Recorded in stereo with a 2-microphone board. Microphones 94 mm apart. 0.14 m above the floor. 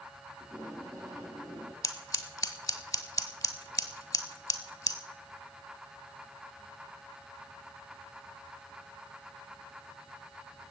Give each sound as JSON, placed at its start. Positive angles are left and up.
{"t": 0.4, "sound": "tape being pulled", "side_deg": -40, "distance_m": 5.5}
{"t": 1.8, "sound": "scissors", "side_deg": 35, "distance_m": 1.4}